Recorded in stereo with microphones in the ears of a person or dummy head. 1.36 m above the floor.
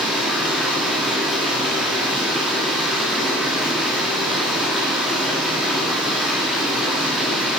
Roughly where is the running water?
Centre.